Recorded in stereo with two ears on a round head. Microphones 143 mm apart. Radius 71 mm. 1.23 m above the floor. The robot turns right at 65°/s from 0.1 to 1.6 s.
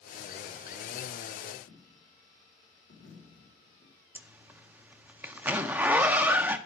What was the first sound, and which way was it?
A dropped coin, 75° left (ahead or behind).